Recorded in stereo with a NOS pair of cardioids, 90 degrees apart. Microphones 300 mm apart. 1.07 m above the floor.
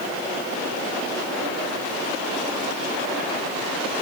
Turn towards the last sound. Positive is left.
No sound to turn to.